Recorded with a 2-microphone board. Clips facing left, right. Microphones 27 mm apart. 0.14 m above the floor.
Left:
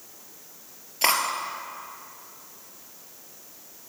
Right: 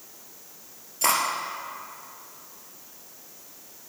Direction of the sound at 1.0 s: 35° left (ahead or behind).